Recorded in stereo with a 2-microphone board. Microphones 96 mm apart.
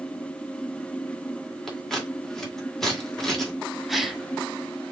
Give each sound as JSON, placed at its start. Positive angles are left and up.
{"t": 1.7, "sound": "scissors", "side_deg": 5, "distance_m": 1.7}
{"t": 3.9, "sound": "a gasp", "side_deg": 0, "distance_m": 0.8}